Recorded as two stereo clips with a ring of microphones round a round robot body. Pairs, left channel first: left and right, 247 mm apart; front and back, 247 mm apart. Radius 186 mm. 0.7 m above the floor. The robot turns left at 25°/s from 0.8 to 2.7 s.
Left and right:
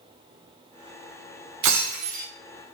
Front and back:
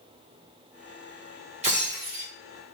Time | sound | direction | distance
1.6 | breaking glass | 110° right | 1.2 m